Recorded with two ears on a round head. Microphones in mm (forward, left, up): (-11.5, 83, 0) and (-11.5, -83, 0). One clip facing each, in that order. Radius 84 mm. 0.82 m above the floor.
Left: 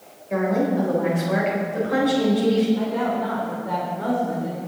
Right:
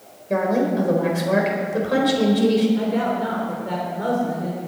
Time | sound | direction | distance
0.3 | a woman speaking | 50° right (ahead or behind) | 4 m
2.8 | a woman speaking | 30° right (ahead or behind) | 3 m